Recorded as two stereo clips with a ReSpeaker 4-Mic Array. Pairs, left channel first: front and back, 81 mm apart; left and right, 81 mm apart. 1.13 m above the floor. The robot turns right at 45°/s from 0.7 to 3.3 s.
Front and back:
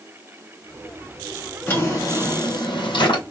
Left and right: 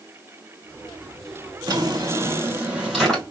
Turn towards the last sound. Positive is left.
turn(degrees=5)